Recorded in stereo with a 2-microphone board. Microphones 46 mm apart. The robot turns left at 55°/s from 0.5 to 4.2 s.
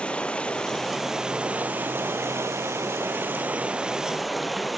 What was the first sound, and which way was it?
Running water, 25° left.